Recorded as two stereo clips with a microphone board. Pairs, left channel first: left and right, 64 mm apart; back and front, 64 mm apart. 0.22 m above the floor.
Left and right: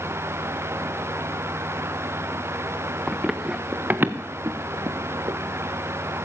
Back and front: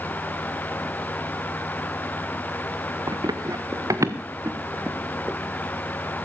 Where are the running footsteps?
Straight ahead, 1.1 m; by 5.4 s 70° right, 1.4 m.